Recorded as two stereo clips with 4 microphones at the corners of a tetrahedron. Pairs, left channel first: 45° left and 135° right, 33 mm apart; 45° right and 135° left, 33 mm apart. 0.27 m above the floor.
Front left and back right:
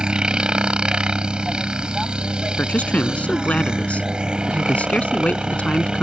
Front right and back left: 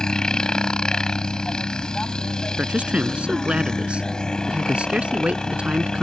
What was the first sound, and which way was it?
A helicopter, 95° right.